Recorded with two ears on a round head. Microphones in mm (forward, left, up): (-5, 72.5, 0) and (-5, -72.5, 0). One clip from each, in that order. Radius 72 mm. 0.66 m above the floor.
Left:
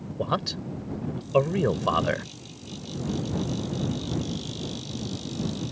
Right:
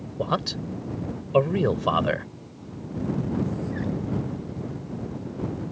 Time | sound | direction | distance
0.2 | a man speaking | 5° left (ahead or behind) | ?